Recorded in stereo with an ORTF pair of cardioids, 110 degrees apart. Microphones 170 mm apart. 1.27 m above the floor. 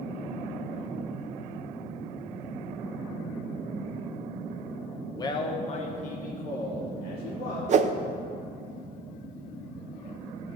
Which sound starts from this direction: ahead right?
A whoosh, at 7.7 s.